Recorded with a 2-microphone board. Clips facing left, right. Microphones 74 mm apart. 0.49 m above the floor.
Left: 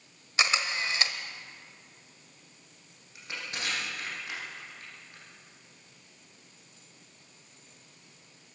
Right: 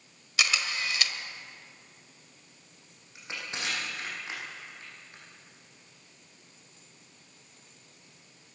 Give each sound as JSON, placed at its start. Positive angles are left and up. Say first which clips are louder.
{"t": 0.4, "sound": "a camera shutter", "louder": "left 2 dB", "side_deg": 30, "distance_m": 1.5}
{"t": 3.1, "sound": "crushing", "louder": "even", "side_deg": -20, "distance_m": 9.5}